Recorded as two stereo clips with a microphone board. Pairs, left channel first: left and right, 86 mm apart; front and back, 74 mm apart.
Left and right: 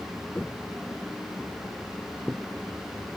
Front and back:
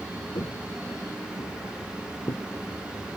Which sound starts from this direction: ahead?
Footsteps, at 0.3 s.